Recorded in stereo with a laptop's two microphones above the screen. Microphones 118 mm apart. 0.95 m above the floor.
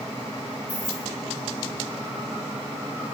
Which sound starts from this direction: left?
Keys jangling, at 0.7 s.